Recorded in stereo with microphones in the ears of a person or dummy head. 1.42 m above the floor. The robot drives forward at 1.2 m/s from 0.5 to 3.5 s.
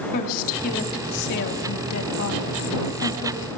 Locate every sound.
0.1 s a woman speaking: 50° left (ahead or behind), 3.5 m; by 3.5 s 60° left (ahead or behind), 3 m